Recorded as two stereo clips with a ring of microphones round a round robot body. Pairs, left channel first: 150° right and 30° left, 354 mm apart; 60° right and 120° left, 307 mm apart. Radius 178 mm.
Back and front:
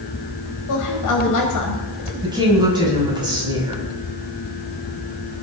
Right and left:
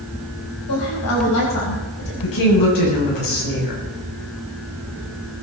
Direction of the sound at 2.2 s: 50° right.